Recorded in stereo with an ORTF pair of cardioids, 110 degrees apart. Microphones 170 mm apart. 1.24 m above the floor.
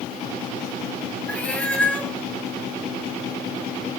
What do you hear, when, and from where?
1.3 s a cat meowing: 10° left, 1.5 m